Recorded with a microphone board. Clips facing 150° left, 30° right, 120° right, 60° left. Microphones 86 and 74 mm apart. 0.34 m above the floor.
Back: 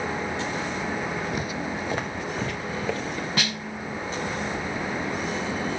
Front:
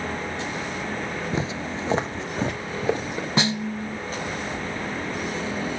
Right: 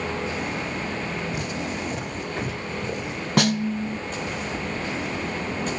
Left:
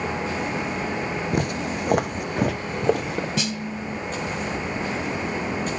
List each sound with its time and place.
1.3 s footsteps: 35° left, 0.9 m; by 3.3 s 40° left, 2.5 m
3.4 s a snare drum: 95° right, 0.6 m